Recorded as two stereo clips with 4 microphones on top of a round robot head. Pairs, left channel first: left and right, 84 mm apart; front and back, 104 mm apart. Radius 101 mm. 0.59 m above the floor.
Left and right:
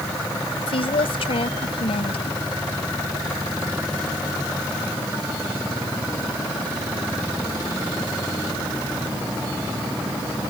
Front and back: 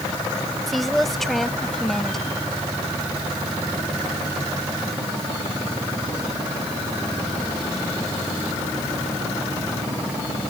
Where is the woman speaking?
90° left; by 2.4 s 85° left.